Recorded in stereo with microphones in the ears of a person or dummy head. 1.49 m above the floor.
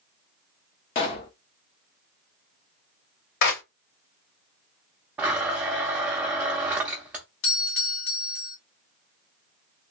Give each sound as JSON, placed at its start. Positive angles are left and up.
{"t": 0.9, "sound": "a pop", "side_deg": 25, "distance_m": 0.5}
{"t": 3.4, "sound": "a clap", "side_deg": 60, "distance_m": 1.7}
{"t": 5.2, "sound": "a blender", "side_deg": -10, "distance_m": 0.5}
{"t": 7.4, "sound": "a doorbell", "side_deg": 60, "distance_m": 1.6}